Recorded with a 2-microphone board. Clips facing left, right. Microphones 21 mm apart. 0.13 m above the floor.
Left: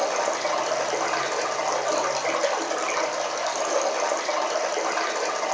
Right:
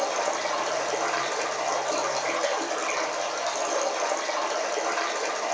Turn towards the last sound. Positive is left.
turn(degrees=15)  # may be behind; listen again after turning